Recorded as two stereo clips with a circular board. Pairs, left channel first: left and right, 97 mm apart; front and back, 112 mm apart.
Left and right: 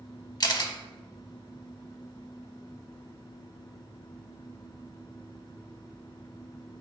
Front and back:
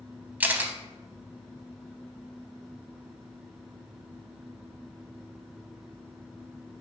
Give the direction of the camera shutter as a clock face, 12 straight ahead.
8 o'clock.